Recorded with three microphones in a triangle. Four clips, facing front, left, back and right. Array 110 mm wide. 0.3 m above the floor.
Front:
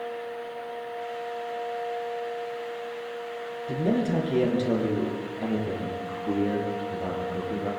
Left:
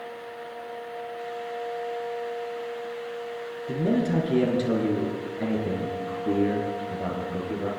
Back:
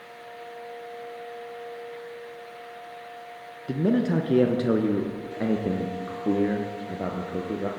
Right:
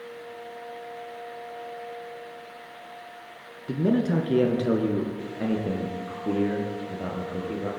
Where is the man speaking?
150° right, 4 m; by 7.7 s straight behind, 6.5 m.